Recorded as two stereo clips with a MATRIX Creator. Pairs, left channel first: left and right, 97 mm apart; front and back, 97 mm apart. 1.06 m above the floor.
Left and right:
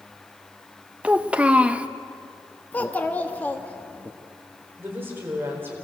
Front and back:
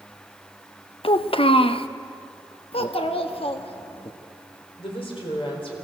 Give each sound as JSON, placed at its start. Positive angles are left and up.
{"t": 1.0, "sound": "a child speaking", "azimuth_deg": -15, "distance_m": 0.8}
{"t": 2.7, "sound": "a child speaking", "azimuth_deg": 15, "distance_m": 1.1}
{"t": 4.8, "sound": "a woman speaking", "azimuth_deg": -25, "distance_m": 4.0}